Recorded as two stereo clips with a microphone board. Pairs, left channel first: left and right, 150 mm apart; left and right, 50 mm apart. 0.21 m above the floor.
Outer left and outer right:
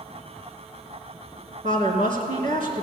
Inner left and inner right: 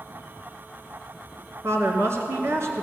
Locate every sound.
1.6 s a woman speaking: 60° right (ahead or behind), 2 m